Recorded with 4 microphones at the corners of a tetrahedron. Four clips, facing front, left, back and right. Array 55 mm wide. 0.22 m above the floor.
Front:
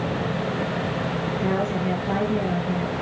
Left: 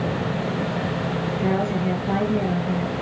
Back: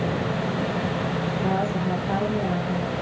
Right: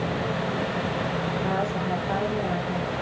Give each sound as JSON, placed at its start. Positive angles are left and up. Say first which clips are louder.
{"t": 1.4, "sound": "a woman speaking", "louder": "left 6 dB, front 1 dB", "azimuth_deg": 55, "distance_m": 4.0}